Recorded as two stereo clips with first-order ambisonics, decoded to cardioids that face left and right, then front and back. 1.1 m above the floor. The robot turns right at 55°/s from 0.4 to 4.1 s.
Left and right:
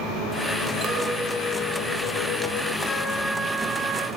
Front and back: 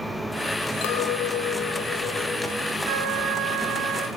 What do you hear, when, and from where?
0.8 s a clink: 25° right, 1.7 m; by 2.8 s 80° left, 1.7 m
2.9 s a trumpet: 165° left, 5 m; by 4.1 s 125° right, 5 m